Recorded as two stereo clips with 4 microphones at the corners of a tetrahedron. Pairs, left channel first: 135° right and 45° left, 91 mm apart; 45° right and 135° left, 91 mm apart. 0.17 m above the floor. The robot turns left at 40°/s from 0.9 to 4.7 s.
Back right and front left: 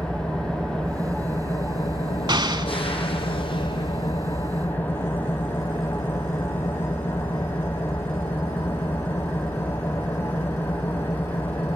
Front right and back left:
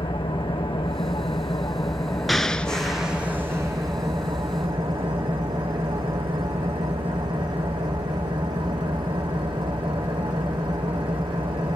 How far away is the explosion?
About 0.7 m.